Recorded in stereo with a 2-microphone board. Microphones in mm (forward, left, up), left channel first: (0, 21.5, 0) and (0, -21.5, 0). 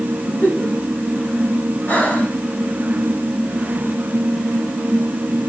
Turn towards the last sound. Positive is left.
turn(degrees=40)  # may be behind; listen again after turning